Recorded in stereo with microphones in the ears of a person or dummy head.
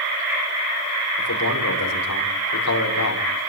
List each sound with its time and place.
1.2 s a man speaking: 85° left, 6.5 m